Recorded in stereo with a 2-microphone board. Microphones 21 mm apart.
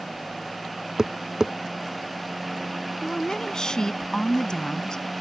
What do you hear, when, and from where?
1.0 s tapping: 35° right (ahead or behind)
3.0 s a woman speaking: 40° left (ahead or behind)